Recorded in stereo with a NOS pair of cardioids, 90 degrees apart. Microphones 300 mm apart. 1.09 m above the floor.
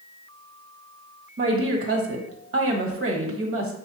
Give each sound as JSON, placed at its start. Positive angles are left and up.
{"t": 1.4, "sound": "a woman speaking", "azimuth_deg": -50, "distance_m": 1.4}